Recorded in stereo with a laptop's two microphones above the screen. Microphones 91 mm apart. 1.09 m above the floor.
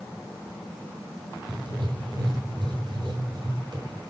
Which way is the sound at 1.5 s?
60° right (ahead or behind).